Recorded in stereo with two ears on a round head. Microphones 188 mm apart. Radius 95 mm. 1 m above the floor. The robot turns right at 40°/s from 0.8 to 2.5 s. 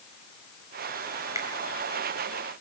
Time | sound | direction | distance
1.4 | a finger snap | 15° right (ahead or behind) | 4 m